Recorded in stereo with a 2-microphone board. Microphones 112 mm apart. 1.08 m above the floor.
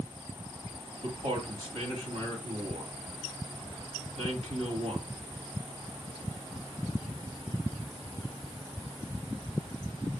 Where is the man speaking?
85° right, 1.9 m.